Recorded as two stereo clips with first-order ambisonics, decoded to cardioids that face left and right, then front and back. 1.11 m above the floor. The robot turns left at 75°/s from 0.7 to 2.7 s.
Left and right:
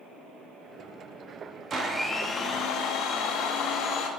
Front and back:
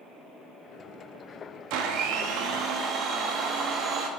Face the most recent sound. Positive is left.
turn(degrees=130)